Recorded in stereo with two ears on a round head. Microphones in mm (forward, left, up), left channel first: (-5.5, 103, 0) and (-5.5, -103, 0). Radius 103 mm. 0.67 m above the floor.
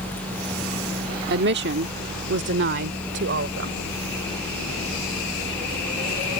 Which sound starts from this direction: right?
A woman speaking, at 1.3 s.